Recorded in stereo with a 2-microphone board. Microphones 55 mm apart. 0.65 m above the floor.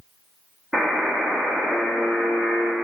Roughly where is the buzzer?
Centre.